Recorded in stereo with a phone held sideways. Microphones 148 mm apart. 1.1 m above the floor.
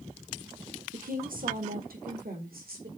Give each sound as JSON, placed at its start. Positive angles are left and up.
{"t": 0.9, "sound": "a woman speaking", "side_deg": -70, "distance_m": 1.2}